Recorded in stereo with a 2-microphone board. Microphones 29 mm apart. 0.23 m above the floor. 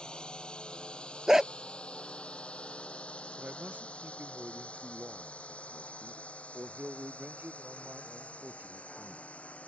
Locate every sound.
0.0 s a drone: 30° left (ahead or behind); by 9.7 s 50° left (ahead or behind)
1.3 s a dog barking: 15° right (ahead or behind)
3.4 s a man speaking: 75° right (ahead or behind)